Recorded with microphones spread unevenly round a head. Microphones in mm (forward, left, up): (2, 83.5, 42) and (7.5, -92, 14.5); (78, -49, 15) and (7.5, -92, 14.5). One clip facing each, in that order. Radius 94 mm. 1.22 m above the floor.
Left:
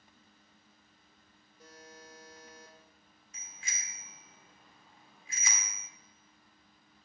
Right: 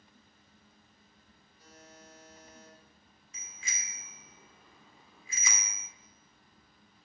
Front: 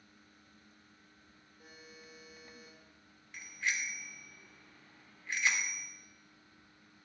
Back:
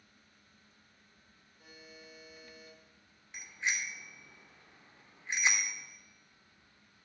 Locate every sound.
1.6 s a buzzer: 115° left, 4.5 m
3.3 s a bicycle bell: 80° right, 2.5 m